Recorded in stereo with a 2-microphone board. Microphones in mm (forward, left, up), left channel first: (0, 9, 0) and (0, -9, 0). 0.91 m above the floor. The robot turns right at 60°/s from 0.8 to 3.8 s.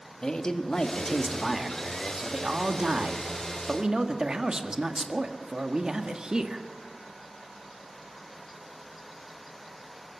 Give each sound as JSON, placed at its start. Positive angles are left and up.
{"t": 0.2, "sound": "a man speaking", "azimuth_deg": 135, "distance_m": 1.5}